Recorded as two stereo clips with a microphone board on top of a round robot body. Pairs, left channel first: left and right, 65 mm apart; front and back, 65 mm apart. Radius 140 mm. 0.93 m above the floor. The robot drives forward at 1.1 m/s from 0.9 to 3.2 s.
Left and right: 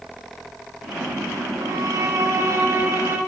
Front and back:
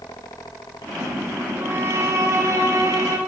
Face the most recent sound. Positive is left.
turn(degrees=-145)